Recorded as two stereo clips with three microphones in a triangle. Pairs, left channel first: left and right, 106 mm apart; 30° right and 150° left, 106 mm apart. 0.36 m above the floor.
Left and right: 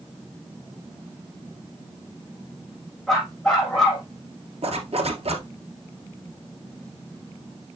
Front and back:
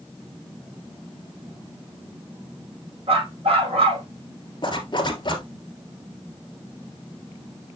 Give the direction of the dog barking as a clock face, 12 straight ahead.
6 o'clock.